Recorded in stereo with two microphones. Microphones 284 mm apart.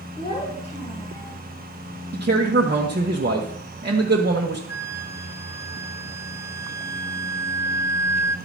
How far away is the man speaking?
About 1.1 m.